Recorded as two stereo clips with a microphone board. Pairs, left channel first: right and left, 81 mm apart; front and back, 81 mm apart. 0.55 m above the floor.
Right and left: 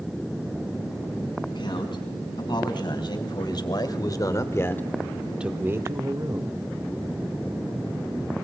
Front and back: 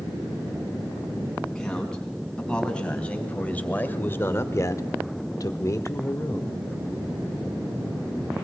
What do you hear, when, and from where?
1.5 s a man speaking: 85° right, 5 m; by 6.6 s 60° left, 2.5 m